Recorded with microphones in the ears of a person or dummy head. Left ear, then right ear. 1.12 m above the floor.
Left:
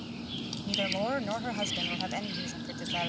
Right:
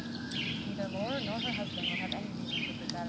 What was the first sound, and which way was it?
A woman speaking, 85° left.